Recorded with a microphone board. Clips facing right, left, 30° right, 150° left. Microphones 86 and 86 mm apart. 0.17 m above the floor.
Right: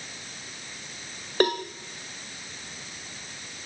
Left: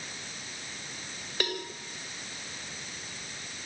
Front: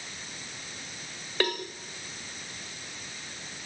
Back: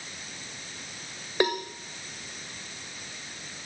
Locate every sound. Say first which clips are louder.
1.4 s a cowbell: right 11 dB, back 4 dB; 140° right, 2.5 m